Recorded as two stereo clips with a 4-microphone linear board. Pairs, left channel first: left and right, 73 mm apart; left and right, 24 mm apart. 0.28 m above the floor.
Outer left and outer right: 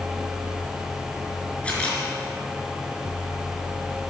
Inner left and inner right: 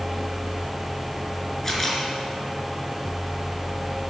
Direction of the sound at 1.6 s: 15° left (ahead or behind).